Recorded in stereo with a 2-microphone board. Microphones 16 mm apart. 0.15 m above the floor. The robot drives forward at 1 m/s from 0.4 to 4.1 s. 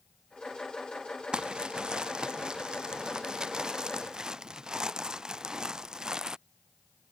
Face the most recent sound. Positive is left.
turn(degrees=-50)  # may be behind; listen again after turning